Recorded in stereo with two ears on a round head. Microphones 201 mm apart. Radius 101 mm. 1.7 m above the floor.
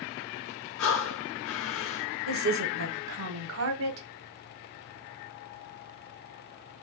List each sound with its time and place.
0.8 s breathing: 60° left (ahead or behind), 0.9 m
2.3 s a woman speaking: 65° right (ahead or behind), 0.9 m